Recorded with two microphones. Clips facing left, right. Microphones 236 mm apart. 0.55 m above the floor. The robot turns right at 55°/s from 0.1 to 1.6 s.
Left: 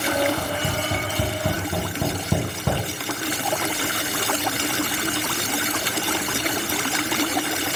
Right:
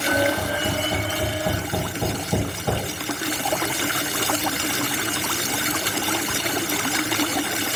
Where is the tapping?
Centre (ahead or behind), 3.5 m; by 2.8 s 75° left (ahead or behind), 3.5 m.